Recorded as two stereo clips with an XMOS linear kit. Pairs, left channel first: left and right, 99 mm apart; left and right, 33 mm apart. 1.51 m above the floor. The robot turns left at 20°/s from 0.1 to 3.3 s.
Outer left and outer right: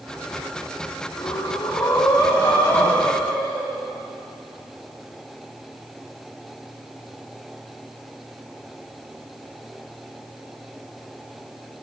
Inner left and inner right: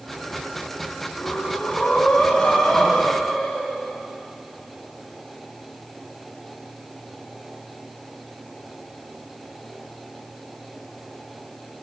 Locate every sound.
1.2 s breathing: 50° left, 3.5 m; by 3.7 s 5° left, 3.5 m